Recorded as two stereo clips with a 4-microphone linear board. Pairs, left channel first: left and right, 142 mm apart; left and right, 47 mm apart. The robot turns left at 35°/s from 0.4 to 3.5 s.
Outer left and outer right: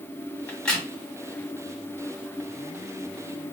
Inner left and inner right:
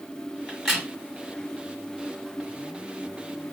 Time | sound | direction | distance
0.5 | a crack | 10° left (ahead or behind) | 1.9 m